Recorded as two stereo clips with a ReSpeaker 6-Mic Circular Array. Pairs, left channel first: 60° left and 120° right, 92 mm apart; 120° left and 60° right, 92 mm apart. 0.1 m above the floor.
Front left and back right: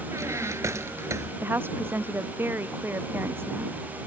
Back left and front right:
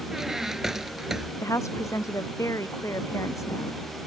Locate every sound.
0.1 s a squeak: 140° right
1.4 s a woman speaking: 175° left